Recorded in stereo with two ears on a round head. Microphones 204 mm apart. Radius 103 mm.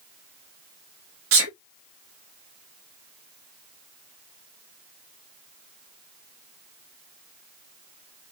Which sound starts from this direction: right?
A sneeze, at 1.3 s.